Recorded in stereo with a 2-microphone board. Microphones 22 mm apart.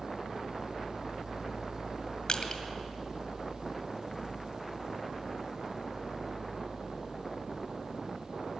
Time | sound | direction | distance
2.3 | crushing | 50° left (ahead or behind) | 2 m